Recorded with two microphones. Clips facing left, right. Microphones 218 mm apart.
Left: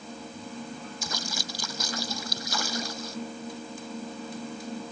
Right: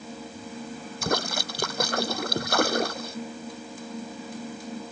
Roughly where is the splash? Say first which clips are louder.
Right 9 dB; right.